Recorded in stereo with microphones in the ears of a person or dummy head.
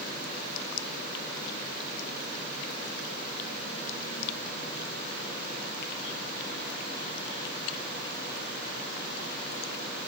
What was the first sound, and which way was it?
Only background noise.